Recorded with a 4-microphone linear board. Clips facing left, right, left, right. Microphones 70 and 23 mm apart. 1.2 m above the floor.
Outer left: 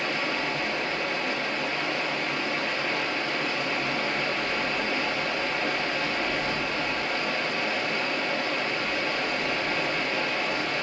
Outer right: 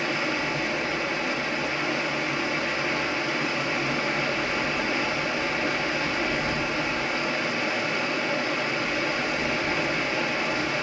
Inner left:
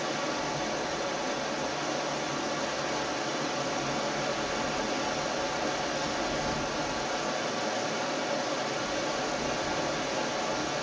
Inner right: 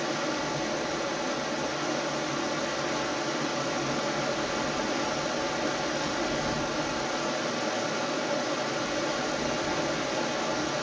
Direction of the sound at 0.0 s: 10° right (ahead or behind).